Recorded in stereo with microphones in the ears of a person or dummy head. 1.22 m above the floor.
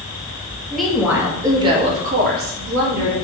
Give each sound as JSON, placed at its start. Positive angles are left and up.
{"t": 0.7, "sound": "a woman speaking", "side_deg": 0, "distance_m": 1.0}